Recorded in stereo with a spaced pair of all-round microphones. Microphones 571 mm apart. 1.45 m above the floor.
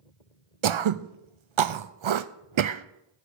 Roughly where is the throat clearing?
Right.